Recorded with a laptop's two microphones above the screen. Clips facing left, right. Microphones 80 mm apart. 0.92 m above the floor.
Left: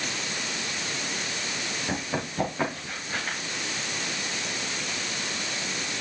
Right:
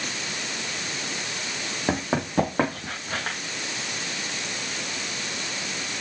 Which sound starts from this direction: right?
Running footsteps, at 1.9 s.